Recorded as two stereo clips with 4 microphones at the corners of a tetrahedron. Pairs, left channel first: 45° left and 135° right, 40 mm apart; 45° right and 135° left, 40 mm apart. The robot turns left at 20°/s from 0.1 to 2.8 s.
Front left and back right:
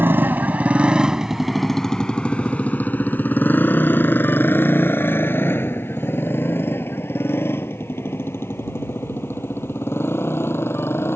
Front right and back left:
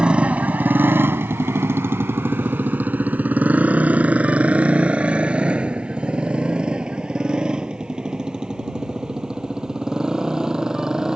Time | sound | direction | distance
0.0 | a motorcycle | 160° right | ?